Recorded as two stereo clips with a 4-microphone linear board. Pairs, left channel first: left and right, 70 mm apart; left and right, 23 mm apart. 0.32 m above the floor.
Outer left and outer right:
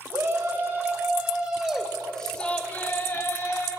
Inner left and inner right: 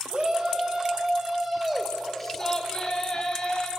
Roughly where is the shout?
Right.